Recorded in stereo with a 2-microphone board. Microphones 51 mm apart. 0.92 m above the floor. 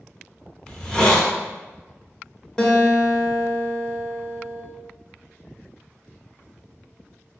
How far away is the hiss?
About 0.5 m.